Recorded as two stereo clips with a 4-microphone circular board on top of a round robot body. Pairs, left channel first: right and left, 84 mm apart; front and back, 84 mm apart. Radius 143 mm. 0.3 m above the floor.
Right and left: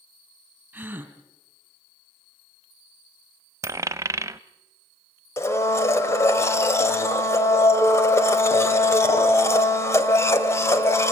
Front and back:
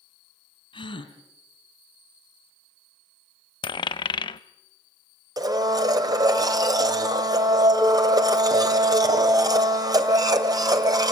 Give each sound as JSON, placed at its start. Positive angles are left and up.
{"t": 0.7, "sound": "a gasp", "azimuth_deg": 20, "distance_m": 2.0}
{"t": 3.6, "sound": "a dropped coin", "azimuth_deg": 30, "distance_m": 0.5}
{"t": 5.4, "sound": "a blender", "azimuth_deg": -145, "distance_m": 2.0}